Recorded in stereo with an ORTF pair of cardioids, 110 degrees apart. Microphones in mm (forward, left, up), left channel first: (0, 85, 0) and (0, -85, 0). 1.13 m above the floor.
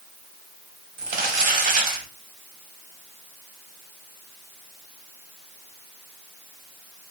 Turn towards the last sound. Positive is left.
turn(degrees=-55)